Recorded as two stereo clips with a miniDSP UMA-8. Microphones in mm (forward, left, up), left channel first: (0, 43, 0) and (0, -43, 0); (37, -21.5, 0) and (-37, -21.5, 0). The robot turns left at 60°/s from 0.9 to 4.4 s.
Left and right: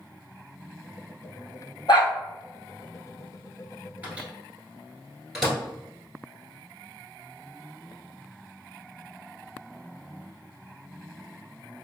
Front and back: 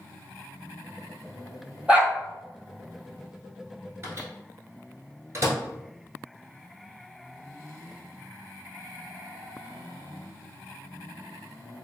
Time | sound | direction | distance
1.9 | a dog barking | 110° left | 1.0 m
4.0 | a microwave | 150° right | 1.1 m